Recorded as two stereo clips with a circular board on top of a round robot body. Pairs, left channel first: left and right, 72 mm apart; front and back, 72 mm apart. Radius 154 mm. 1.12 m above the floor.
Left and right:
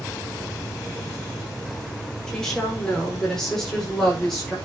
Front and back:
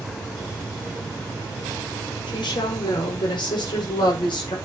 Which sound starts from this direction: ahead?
A woman speaking, at 2.3 s.